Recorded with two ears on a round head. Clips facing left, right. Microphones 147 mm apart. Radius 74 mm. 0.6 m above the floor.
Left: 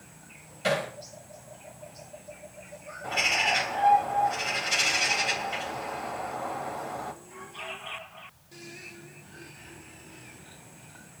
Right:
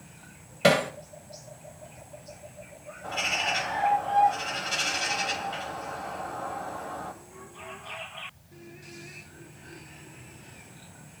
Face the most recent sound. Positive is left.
turn(degrees=20)  # may be behind; listen again after turning